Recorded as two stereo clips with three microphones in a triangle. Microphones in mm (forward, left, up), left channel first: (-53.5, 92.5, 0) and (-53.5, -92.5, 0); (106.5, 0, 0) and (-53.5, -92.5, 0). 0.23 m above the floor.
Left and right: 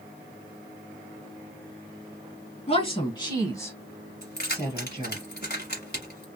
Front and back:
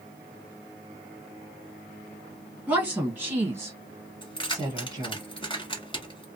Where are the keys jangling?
85° left, 1.2 m.